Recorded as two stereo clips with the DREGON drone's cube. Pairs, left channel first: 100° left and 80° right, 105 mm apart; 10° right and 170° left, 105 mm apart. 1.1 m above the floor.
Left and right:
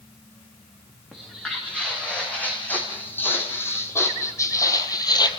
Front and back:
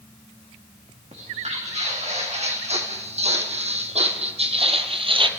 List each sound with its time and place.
1.1 s footsteps: straight behind, 5.5 m; by 5.3 s 140° left, 1.9 m